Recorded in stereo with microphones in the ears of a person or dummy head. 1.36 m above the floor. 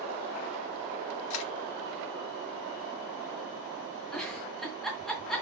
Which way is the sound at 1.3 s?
80° left.